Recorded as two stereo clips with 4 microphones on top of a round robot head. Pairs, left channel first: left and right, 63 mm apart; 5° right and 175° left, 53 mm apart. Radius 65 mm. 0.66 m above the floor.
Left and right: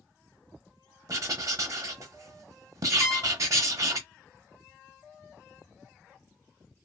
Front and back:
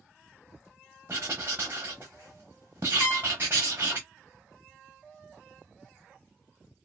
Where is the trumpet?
5° right, 1.5 m.